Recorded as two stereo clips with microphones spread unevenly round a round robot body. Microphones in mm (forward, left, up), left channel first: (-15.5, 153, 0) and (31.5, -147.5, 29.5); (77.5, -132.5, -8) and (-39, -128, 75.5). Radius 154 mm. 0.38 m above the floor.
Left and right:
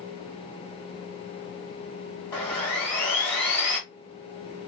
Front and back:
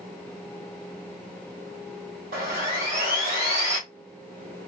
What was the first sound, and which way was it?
Sawing, straight behind.